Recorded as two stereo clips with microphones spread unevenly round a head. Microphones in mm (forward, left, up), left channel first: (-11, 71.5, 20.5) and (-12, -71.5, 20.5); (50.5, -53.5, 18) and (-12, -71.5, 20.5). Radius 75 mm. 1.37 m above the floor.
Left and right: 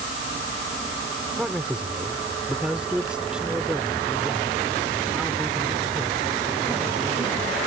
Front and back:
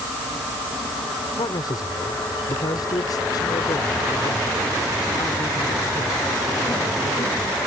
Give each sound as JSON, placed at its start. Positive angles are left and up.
{"t": 1.4, "sound": "a man speaking", "azimuth_deg": -5}